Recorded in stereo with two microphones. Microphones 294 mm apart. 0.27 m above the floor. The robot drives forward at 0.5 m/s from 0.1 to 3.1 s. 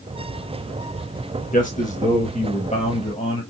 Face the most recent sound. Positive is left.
turn(degrees=20)  # may be behind; listen again after turning